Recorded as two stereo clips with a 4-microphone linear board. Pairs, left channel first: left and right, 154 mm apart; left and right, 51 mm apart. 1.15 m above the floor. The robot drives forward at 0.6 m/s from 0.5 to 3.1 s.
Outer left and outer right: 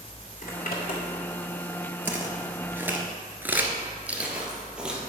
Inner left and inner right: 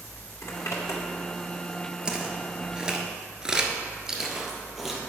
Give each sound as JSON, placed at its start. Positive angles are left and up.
{"t": 0.4, "sound": "a zipper", "side_deg": 65, "distance_m": 2.5}
{"t": 2.0, "sound": "footsteps", "side_deg": -10, "distance_m": 1.4}